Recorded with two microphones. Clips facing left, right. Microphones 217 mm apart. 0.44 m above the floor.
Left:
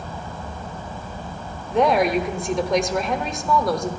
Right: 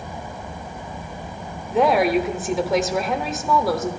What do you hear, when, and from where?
1.7 s a woman speaking: 5° right (ahead or behind), 1.1 m